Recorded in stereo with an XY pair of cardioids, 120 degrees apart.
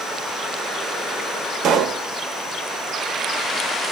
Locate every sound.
1.6 s a pop: 65° right, 0.7 m